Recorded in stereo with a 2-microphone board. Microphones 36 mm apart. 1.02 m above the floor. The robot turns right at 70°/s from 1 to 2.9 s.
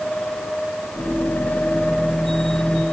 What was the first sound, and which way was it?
Only background noise.